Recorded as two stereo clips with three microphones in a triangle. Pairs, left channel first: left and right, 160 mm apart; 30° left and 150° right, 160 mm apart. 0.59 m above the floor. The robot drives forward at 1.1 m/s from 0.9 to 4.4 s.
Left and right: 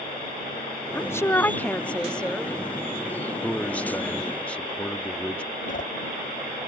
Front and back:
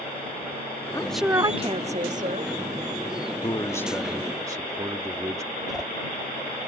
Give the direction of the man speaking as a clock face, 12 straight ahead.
12 o'clock.